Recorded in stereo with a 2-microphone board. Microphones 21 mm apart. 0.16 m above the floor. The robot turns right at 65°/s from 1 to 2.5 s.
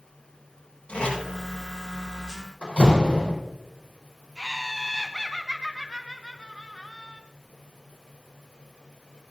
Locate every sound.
0.9 s tape being pulled: 65° left (ahead or behind), 6 m; by 1.2 s 75° left (ahead or behind), 6 m
2.6 s a door slam: 55° left (ahead or behind), 5 m
4.4 s laughter: 10° right (ahead or behind), 1.1 m